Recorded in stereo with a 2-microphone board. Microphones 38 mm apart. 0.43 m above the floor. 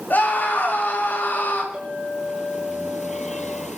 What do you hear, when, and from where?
0.1 s a scream: 55° left (ahead or behind), 6.5 m
1.7 s a clink: 25° right (ahead or behind), 7 m